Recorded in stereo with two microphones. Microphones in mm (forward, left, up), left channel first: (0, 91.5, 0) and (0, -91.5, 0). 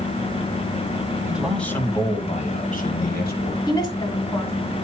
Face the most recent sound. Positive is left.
turn(degrees=20)  # may be behind; listen again after turning